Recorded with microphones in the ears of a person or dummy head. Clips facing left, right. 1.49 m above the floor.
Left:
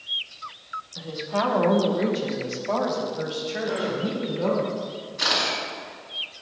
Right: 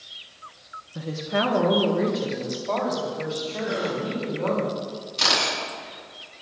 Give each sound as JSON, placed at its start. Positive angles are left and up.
{"t": 0.9, "sound": "a woman speaking", "side_deg": -45, "distance_m": 1.0}
{"t": 3.6, "sound": "a gasp", "side_deg": -20, "distance_m": 5.0}
{"t": 5.2, "sound": "a camera shutter", "side_deg": -50, "distance_m": 5.0}